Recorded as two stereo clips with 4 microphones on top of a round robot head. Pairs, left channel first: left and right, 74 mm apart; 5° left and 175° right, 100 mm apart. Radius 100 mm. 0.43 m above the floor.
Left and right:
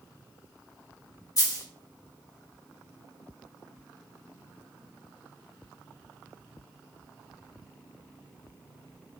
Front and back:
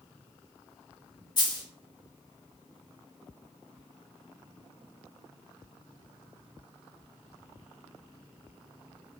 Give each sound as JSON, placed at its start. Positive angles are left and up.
{"t": 1.4, "sound": "a dropped coin", "azimuth_deg": 50, "distance_m": 1.2}